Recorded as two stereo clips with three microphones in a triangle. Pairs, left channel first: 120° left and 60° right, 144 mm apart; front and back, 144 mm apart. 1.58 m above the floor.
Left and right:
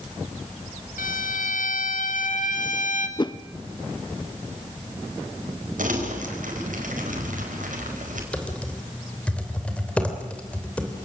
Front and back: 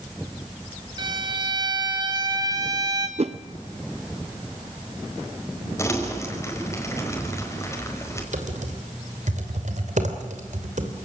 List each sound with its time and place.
1.0 s a violin: 125° left, 1.7 m
3.2 s a whoosh: 165° left, 0.5 m
5.8 s crumpling: 70° right, 4.5 m
8.3 s typing on a keyboard: 160° right, 3 m